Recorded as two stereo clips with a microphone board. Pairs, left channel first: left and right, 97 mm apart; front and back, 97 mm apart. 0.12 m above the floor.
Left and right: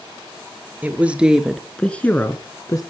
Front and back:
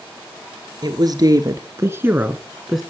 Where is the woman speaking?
155° right, 2 m; by 2.8 s 90° left, 1.7 m.